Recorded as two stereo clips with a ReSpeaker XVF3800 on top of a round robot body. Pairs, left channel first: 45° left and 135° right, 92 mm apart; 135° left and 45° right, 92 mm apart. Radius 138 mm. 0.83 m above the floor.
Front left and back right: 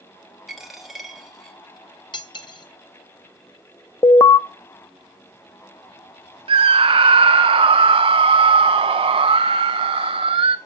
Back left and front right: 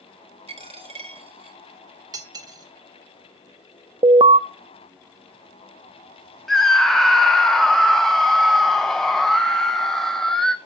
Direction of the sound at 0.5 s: 50° right.